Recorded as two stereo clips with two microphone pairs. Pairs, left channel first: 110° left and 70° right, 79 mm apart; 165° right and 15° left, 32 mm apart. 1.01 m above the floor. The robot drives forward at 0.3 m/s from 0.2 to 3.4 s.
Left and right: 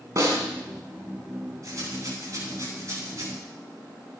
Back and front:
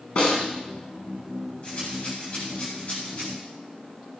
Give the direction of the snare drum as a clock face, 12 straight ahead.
4 o'clock.